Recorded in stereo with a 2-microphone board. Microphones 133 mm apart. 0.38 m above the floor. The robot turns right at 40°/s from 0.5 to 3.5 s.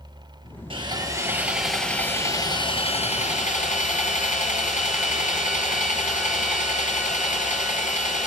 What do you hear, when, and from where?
0.7 s sawing: 40° right, 3 m; by 8.3 s 70° left, 3 m